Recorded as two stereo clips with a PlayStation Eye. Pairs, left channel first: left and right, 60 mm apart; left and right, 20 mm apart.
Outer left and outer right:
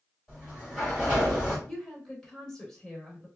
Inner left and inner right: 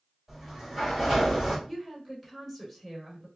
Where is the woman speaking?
10° left (ahead or behind), 1.0 m.